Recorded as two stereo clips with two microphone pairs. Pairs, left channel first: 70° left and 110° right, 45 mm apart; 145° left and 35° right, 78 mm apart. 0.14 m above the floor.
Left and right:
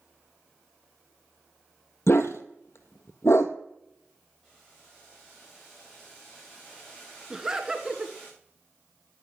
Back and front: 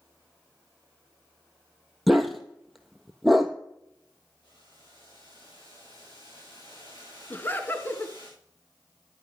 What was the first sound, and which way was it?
A dog barking, 55° left.